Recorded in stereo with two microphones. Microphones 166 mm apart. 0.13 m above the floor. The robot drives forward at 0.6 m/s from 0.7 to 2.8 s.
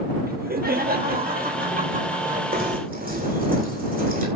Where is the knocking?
60° right (ahead or behind), 8 m.